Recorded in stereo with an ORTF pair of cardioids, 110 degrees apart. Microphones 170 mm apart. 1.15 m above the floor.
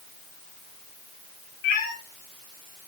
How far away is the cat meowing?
About 3 m.